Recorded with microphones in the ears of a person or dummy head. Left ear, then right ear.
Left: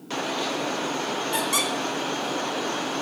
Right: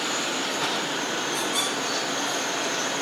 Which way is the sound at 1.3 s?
50° left (ahead or behind).